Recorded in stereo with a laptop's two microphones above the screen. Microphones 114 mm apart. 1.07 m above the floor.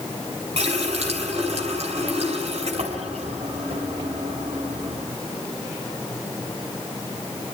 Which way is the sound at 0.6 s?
65° right (ahead or behind).